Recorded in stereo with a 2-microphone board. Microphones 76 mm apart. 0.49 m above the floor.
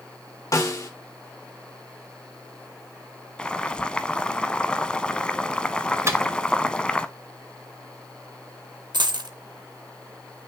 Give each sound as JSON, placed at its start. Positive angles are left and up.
{"t": 0.5, "sound": "a snare drum", "side_deg": 45, "distance_m": 1.6}
{"t": 3.4, "sound": "boiling", "side_deg": 15, "distance_m": 0.6}
{"t": 6.1, "sound": "a microwave", "side_deg": -40, "distance_m": 1.0}
{"t": 8.9, "sound": "a dropped coin", "side_deg": -70, "distance_m": 0.8}